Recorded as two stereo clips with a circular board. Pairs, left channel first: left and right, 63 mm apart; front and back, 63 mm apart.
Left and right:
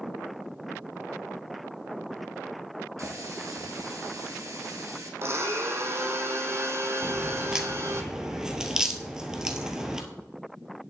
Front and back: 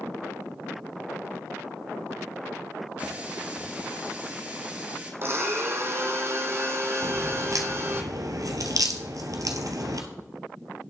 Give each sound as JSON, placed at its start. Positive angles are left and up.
{"t": 3.0, "sound": "a running tap", "azimuth_deg": -120, "distance_m": 2.5}
{"t": 5.2, "sound": "a blender", "azimuth_deg": -135, "distance_m": 1.5}
{"t": 7.0, "sound": "a crack", "azimuth_deg": -170, "distance_m": 1.4}